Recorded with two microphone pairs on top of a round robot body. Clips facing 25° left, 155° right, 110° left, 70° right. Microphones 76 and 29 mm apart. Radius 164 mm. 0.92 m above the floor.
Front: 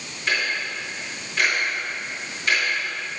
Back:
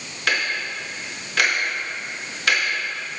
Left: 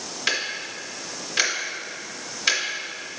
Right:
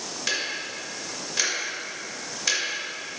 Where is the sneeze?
I don't hear a sneeze.